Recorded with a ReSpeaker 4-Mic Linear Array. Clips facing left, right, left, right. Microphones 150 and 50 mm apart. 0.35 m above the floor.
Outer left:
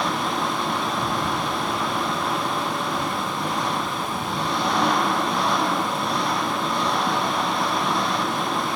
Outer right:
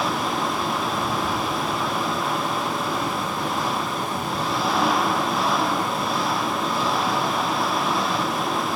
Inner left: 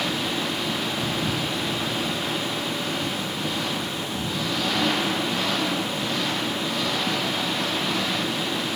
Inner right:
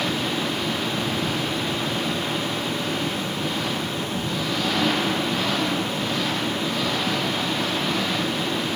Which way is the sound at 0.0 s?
Centre (ahead or behind).